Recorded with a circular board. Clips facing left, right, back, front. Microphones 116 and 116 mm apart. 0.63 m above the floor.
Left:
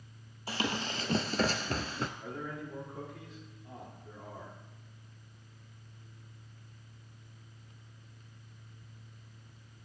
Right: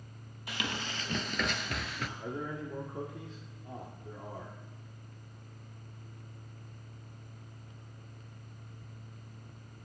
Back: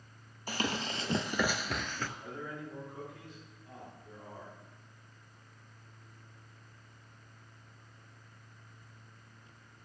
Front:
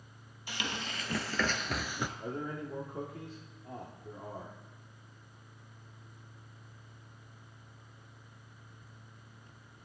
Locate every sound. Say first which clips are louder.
0.5 s running footsteps: left 4 dB, back 4 dB; 140° left, 1.1 m; by 2.1 s 55° left, 0.7 m
2.2 s a man speaking: right 3 dB, front 4 dB; 35° right, 1.6 m